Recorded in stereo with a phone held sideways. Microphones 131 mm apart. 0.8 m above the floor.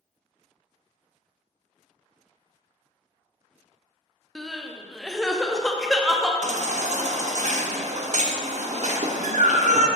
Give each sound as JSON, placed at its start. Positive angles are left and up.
{"t": 4.3, "sound": "crying", "side_deg": 0, "distance_m": 0.6}
{"t": 6.4, "sound": "a baby crying", "side_deg": -65, "distance_m": 0.6}